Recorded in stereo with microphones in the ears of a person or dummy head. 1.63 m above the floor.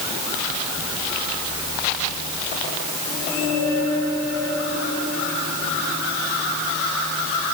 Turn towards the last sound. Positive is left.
No sound to turn to.